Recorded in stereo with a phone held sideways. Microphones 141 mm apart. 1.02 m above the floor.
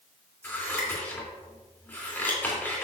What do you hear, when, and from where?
0.4 s scissors: 15° left (ahead or behind), 3 m